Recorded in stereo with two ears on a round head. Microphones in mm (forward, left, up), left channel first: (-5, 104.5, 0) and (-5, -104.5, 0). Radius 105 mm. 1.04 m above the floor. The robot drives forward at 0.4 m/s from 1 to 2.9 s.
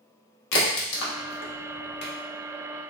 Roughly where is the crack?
Left.